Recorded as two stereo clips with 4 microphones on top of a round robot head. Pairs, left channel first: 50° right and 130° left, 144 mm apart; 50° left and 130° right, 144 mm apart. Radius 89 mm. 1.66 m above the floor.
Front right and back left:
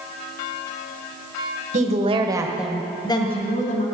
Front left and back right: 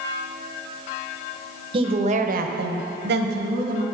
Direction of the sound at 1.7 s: 175° left.